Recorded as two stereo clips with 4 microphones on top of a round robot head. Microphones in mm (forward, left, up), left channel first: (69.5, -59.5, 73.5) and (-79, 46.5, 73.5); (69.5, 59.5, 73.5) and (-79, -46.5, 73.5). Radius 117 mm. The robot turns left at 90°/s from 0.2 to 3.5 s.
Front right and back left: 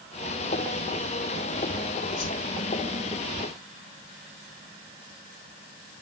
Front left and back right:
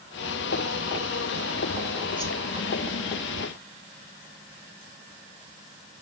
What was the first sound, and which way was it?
A whoosh, 30° right.